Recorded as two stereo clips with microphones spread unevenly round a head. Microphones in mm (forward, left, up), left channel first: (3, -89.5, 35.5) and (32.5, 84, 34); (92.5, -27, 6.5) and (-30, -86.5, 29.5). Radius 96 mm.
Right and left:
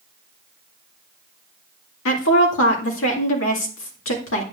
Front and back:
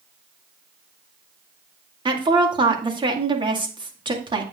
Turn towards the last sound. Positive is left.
turn(degrees=-100)